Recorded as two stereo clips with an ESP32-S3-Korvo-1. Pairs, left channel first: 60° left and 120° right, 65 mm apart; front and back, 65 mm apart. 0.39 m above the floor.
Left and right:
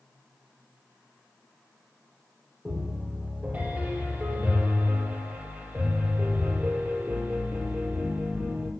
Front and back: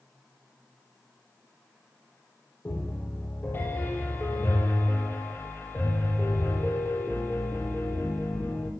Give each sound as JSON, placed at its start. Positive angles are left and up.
{"t": 2.6, "sound": "a piano", "azimuth_deg": -55, "distance_m": 5.0}